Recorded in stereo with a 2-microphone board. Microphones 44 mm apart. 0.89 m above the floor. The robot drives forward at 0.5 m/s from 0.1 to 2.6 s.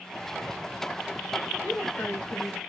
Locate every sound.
1.6 s a woman speaking: 50° left (ahead or behind), 1.1 m; by 2.6 s 55° left (ahead or behind), 1.1 m